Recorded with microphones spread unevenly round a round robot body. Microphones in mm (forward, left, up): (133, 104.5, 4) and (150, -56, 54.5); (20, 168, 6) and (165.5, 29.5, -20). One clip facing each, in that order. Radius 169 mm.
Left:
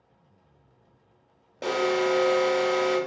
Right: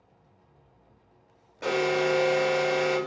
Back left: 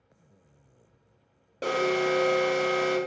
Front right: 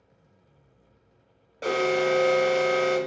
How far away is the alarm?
About 1.1 m.